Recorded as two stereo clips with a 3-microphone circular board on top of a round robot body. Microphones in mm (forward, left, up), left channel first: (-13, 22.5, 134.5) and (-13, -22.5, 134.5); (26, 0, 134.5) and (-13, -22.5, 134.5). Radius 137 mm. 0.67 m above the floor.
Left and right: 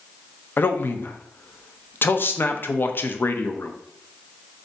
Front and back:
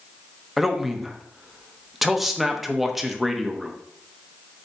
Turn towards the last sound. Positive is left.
turn(degrees=125)